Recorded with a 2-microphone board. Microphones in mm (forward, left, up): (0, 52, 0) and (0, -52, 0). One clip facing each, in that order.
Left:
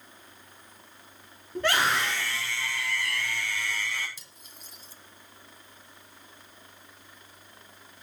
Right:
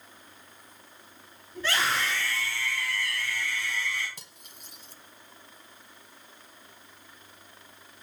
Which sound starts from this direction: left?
A scream, at 1.6 s.